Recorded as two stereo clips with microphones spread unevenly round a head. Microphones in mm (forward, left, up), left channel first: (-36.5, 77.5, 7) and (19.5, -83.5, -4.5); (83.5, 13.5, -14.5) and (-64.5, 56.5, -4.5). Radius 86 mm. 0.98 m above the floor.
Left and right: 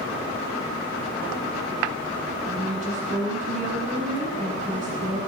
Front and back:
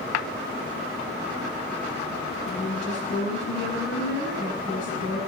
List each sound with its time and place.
2.5 s a woman speaking: 25° right, 5.5 m